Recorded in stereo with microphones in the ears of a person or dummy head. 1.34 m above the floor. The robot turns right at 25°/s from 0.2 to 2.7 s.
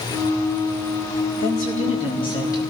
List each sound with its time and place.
1.4 s a woman speaking: 130° left, 3.5 m; by 2.6 s 160° left, 3.5 m